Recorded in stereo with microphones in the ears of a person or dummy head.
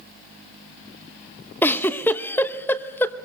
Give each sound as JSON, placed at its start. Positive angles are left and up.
{"t": 1.6, "sound": "a giggle", "side_deg": 10, "distance_m": 0.9}